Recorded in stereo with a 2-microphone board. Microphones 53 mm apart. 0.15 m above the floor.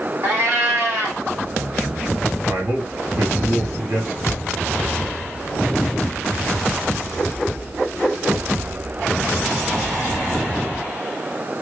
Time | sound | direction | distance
0.2 | a cat meowing | 45° right (ahead or behind) | 1.4 m
2.5 | a man speaking | 55° right (ahead or behind) | 2.5 m
4.3 | a thud | 55° left (ahead or behind) | 0.5 m